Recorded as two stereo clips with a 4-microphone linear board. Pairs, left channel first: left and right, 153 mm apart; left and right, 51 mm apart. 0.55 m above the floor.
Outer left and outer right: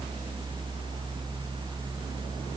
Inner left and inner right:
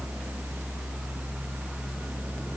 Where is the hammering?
I don't hear hammering.